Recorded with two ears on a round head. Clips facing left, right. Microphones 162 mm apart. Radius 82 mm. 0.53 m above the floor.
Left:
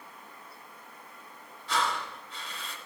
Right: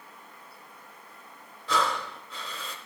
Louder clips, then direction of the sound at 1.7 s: Right 3 dB; 70° right (ahead or behind).